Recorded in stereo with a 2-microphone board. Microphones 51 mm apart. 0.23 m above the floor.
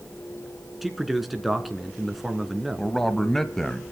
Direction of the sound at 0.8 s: Centre (ahead or behind).